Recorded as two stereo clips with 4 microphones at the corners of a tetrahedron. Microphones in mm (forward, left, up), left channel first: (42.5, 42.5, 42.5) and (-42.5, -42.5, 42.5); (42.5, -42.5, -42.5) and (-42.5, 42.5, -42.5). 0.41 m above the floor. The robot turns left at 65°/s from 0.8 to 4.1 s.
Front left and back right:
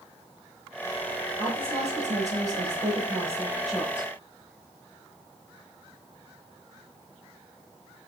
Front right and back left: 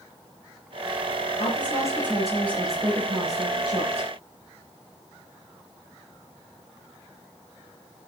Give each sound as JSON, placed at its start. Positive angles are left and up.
{"t": 1.4, "sound": "a woman speaking", "azimuth_deg": -80, "distance_m": 9.0}